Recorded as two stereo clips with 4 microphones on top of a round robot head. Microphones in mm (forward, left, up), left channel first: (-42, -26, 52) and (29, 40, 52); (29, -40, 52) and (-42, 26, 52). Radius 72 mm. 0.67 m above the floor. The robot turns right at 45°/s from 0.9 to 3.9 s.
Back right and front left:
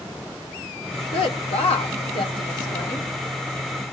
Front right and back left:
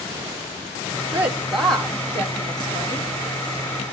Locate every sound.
1.1 s a woman speaking: 155° right, 1.8 m; by 3.1 s 65° right, 1.8 m